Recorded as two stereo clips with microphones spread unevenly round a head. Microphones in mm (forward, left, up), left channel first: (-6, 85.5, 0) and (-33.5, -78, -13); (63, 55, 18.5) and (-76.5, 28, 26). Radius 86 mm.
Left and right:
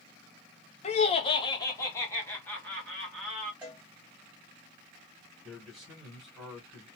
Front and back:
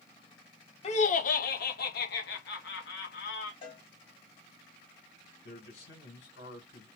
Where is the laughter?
45° left, 0.7 m; by 3.5 s 5° right, 1.7 m.